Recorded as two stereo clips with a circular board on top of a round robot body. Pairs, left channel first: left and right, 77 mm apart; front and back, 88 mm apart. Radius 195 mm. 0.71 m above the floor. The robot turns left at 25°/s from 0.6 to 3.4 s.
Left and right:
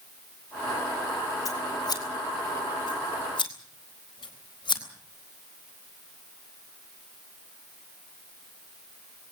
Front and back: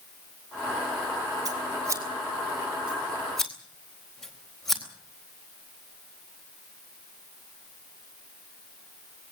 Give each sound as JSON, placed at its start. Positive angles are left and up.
{"t": 1.4, "sound": "scissors", "azimuth_deg": 135, "distance_m": 4.0}